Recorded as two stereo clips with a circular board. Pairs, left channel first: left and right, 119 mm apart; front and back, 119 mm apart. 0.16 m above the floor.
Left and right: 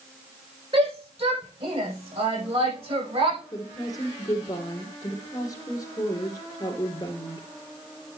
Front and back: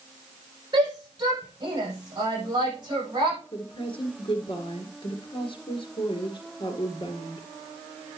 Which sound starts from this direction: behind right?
A shout, at 0.7 s.